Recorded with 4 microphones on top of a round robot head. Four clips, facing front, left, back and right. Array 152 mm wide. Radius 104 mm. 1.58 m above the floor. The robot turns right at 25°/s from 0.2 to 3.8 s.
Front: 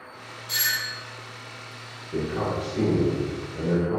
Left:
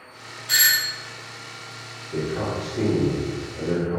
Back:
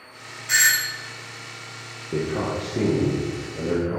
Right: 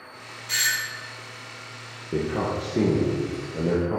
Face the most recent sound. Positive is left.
turn(degrees=-95)